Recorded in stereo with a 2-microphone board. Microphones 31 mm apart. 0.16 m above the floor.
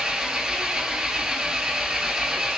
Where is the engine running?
20° right (ahead or behind), 0.7 m.